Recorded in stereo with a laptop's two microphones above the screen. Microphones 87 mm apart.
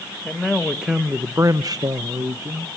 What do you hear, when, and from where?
0.2 s a man speaking: 5° left (ahead or behind), 1.4 m; by 2.7 s 35° right (ahead or behind), 1.3 m